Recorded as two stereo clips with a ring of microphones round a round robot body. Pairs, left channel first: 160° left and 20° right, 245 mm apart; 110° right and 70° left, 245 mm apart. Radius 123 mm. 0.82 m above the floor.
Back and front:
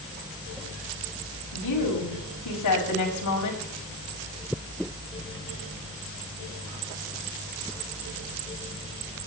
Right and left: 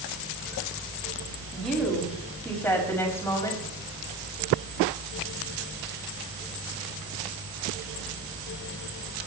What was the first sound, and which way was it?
A woman speaking, 160° left.